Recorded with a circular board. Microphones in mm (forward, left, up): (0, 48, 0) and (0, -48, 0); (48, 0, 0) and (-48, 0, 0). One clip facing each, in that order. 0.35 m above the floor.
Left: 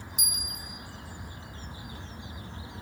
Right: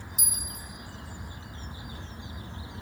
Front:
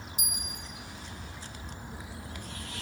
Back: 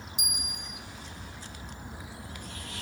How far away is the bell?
About 1.1 m.